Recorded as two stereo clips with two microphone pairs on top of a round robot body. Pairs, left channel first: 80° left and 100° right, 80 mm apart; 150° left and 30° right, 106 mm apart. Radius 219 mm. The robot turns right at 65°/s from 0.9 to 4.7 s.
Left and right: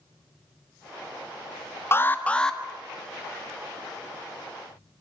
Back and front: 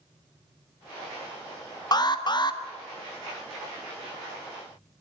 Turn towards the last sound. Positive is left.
turn(degrees=-50)